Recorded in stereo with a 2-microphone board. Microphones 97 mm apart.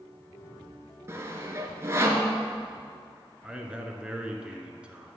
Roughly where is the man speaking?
Centre.